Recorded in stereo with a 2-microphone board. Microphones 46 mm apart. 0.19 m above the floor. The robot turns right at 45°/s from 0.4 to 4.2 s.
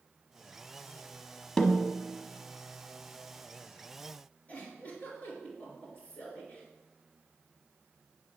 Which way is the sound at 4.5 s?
35° left (ahead or behind).